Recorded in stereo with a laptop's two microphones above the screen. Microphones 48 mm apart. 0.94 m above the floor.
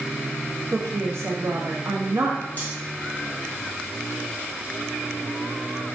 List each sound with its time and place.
0.7 s a woman speaking: 70° right (ahead or behind), 0.7 m
2.6 s cutlery clinking: 40° left (ahead or behind), 1.0 m